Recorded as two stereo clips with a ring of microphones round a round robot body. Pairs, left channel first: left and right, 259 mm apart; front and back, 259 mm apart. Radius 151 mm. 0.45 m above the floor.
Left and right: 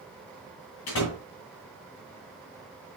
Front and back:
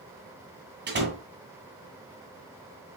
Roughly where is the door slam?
Behind left.